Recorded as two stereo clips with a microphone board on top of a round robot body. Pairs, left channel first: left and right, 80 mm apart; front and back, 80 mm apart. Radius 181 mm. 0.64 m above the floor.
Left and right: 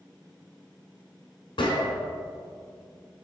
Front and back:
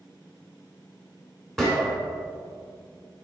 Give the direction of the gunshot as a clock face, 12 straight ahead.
9 o'clock.